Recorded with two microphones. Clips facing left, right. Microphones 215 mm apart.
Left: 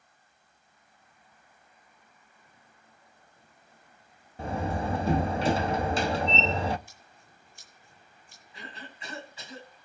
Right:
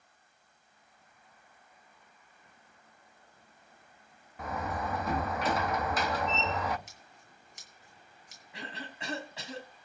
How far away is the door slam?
About 0.8 m.